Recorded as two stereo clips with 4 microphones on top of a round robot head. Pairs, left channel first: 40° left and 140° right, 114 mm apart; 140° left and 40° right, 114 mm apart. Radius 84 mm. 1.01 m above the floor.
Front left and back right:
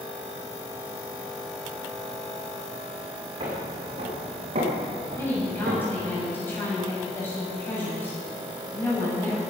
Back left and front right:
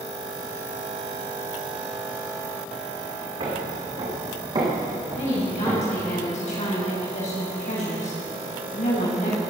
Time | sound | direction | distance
3.4 | footsteps | 90° right | 4.5 m
5.2 | a woman speaking | 115° left | 6.5 m